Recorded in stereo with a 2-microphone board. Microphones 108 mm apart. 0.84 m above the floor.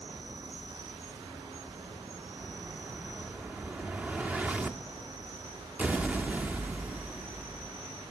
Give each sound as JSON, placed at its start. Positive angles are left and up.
{"t": 0.0, "sound": "an insect", "side_deg": -45, "distance_m": 4.5}
{"t": 2.4, "sound": "an explosion", "side_deg": -10, "distance_m": 1.1}